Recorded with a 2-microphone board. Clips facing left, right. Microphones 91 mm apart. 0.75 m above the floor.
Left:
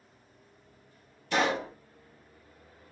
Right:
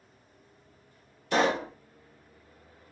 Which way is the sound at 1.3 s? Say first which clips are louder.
Right 2 dB; 35° right (ahead or behind).